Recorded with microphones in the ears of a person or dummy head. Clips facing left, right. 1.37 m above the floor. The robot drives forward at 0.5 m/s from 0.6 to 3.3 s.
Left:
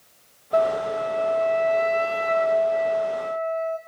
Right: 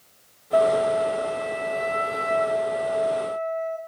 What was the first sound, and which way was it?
A flute, 25° right (ahead or behind).